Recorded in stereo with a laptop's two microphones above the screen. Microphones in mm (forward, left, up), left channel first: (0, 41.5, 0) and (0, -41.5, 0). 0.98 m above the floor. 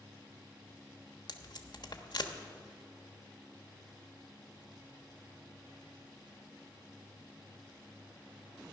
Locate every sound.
1.3 s tape being pulled: 65° left (ahead or behind), 1.1 m